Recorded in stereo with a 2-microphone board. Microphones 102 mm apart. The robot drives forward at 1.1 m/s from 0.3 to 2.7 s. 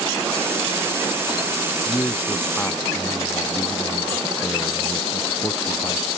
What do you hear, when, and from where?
1.9 s a man speaking: 20° left (ahead or behind)